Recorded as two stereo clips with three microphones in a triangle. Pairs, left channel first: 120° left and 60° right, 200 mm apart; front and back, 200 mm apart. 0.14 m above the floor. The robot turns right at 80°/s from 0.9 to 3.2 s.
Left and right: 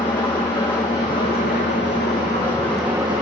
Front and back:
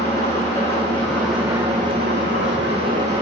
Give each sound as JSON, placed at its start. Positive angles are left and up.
{"t": 0.0, "sound": "an engine running", "azimuth_deg": 60, "distance_m": 5.0}